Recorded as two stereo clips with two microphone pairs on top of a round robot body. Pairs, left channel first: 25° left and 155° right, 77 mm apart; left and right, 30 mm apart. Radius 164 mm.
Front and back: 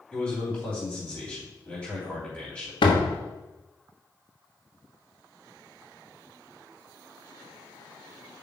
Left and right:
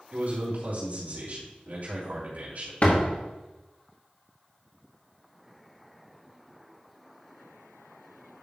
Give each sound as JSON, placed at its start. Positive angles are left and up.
{"t": 0.1, "sound": "a man speaking", "azimuth_deg": -50, "distance_m": 3.0}
{"t": 2.8, "sound": "a door slam", "azimuth_deg": 40, "distance_m": 1.0}